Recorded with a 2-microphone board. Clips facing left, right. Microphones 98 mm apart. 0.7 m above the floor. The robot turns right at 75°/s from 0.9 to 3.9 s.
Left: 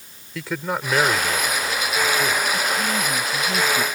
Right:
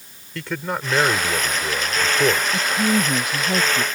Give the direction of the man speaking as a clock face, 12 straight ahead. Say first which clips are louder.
Even; 6 o'clock.